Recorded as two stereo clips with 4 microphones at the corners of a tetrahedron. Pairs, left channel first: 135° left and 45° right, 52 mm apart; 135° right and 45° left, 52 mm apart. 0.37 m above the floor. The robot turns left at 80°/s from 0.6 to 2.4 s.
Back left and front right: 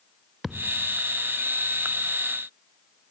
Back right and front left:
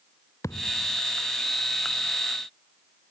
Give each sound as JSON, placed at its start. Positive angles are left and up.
{"t": 0.4, "sound": "a thud", "azimuth_deg": -130}